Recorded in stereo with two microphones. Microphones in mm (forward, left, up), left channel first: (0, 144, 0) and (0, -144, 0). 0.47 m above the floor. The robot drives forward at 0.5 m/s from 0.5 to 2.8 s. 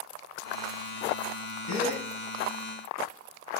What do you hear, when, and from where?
1.7 s a gasp: 60° left (ahead or behind), 5 m